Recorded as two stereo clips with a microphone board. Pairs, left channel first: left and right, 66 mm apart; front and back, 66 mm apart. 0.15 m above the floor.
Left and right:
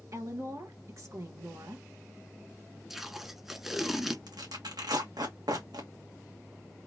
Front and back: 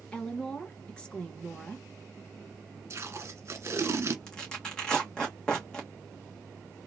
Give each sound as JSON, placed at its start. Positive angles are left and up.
{"t": 0.1, "sound": "a woman speaking", "azimuth_deg": -70, "distance_m": 2.0}
{"t": 2.9, "sound": "tape being pulled", "azimuth_deg": -170, "distance_m": 1.1}
{"t": 4.3, "sound": "tearing paper", "azimuth_deg": -80, "distance_m": 2.0}